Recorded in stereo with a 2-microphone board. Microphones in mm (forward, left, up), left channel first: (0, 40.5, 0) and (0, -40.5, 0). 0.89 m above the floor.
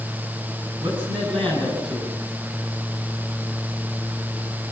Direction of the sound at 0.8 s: 75° right (ahead or behind).